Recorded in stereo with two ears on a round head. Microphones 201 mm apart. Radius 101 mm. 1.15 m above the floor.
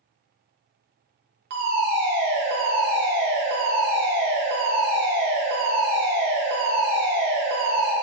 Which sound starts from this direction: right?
A fire alarm, at 1.5 s.